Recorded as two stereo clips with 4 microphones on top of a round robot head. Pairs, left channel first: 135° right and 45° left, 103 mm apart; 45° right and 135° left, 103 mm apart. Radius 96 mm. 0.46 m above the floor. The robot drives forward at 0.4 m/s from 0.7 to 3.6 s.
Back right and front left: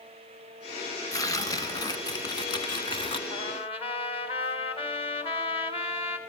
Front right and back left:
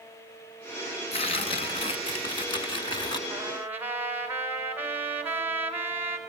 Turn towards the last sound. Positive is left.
turn(degrees=-155)